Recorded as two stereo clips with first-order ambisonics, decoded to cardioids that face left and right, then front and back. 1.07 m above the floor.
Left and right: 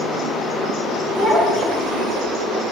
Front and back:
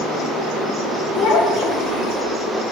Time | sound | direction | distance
1.1 | a child speaking | 10° left | 1.7 m